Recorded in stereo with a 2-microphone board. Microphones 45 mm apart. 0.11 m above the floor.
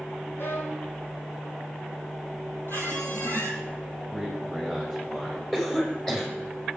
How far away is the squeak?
About 2.5 m.